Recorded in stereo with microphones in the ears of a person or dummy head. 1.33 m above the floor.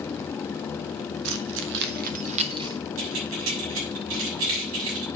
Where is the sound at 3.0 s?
85° right, 6.5 m.